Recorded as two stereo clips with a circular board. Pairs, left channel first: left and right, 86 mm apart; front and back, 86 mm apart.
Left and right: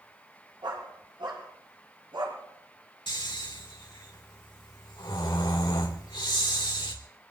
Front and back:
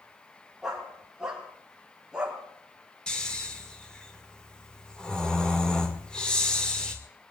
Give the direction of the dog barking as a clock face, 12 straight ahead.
3 o'clock.